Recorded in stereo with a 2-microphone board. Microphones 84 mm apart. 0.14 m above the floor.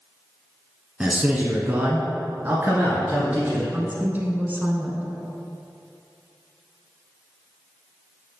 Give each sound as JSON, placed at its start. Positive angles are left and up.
{"t": 1.0, "sound": "a man speaking", "side_deg": -15, "distance_m": 1.2}
{"t": 3.7, "sound": "a woman speaking", "side_deg": -25, "distance_m": 1.1}